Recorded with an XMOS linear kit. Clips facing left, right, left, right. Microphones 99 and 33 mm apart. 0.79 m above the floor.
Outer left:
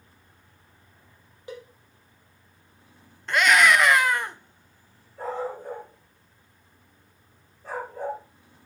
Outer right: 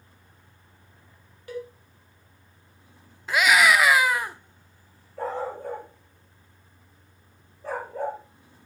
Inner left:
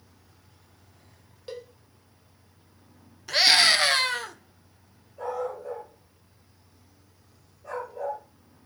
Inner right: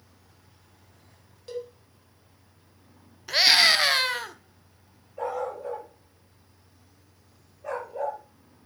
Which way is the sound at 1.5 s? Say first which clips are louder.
Outer right 5 dB, inner right 4 dB; 20° left (ahead or behind).